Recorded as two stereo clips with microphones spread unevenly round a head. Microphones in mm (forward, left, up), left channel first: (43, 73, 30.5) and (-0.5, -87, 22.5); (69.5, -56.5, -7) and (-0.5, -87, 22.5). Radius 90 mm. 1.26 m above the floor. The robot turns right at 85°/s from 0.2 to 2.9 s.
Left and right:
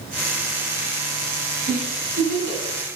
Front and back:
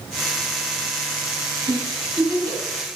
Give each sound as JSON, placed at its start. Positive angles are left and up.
{"t": 1.7, "sound": "a giggle", "azimuth_deg": 155, "distance_m": 2.5}